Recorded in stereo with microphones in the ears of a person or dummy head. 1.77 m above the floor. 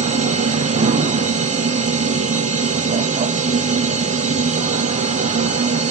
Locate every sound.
0.0 s a machine running: 30° right (ahead or behind), 0.9 m